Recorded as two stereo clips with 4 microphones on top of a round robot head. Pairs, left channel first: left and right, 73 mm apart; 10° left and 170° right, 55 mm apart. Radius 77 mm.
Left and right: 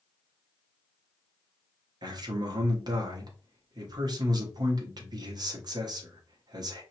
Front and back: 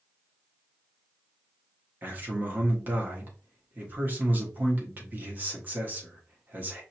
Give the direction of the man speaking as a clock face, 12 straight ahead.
4 o'clock.